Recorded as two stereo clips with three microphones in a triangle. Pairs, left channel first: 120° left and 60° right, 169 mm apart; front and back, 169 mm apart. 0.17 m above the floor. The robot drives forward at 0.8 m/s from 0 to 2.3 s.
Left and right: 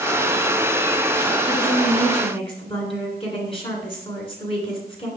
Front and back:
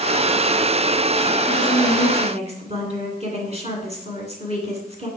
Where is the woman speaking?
140° left, 1.8 m; by 5.1 s 155° left, 2 m.